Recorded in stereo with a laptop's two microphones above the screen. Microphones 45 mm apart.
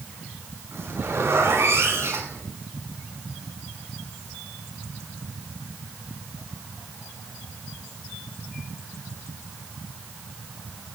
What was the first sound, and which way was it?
A zipper, 80° right.